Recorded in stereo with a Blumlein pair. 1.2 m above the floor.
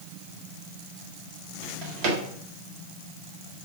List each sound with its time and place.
1.6 s a drawer: 45° right, 1.2 m